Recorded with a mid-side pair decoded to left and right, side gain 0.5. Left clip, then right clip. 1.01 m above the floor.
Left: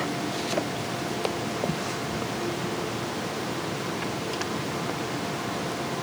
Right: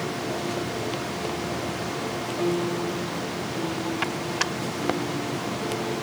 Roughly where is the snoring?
No snoring in this recording.